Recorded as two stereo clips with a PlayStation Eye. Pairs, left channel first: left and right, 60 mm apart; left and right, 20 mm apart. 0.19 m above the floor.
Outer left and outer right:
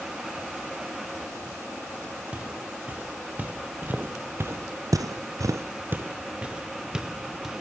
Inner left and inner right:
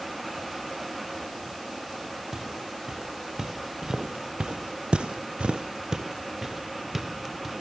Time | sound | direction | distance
2.3 | footsteps | 20° right (ahead or behind) | 3 m